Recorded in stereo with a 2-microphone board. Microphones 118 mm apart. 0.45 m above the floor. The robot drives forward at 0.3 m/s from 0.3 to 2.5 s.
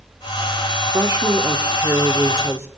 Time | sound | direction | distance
0.9 | a woman speaking | 25° right (ahead or behind) | 1.2 m